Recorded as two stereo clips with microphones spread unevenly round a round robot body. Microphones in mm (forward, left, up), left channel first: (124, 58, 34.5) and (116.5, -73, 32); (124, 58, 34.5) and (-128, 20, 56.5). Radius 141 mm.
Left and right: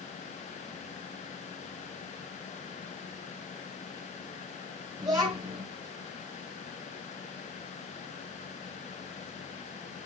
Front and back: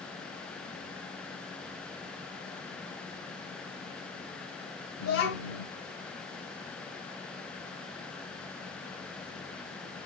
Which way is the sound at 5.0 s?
35° right.